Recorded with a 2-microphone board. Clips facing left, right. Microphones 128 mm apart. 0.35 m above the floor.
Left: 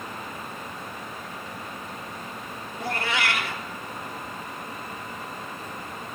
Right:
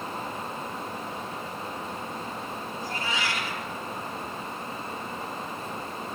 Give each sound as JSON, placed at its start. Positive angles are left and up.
{"t": 2.8, "sound": "a cat meowing", "side_deg": 70, "distance_m": 1.0}